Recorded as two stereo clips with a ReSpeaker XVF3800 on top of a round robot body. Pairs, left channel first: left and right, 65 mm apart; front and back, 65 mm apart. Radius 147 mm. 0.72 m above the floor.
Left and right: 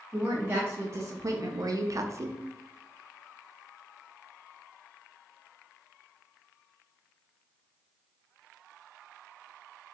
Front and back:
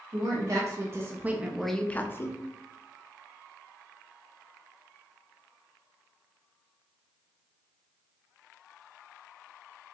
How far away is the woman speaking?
About 1.5 m.